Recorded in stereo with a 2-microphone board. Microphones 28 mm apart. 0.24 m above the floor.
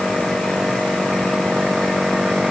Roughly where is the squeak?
I don't hear a squeak.